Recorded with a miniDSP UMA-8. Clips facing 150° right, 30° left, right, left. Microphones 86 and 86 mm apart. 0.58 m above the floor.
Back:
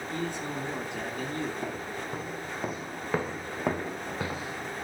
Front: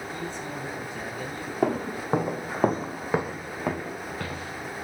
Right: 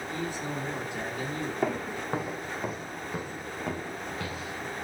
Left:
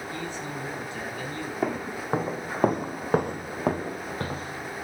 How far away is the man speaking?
About 5 m.